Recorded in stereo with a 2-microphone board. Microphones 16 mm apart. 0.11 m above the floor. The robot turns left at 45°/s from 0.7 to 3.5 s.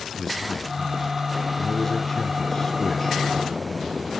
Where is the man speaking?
140° left, 1.7 m; by 4.2 s 10° left, 1.7 m.